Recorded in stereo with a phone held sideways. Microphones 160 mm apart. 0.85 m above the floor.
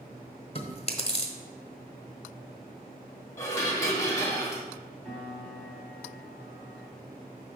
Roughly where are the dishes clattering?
Centre.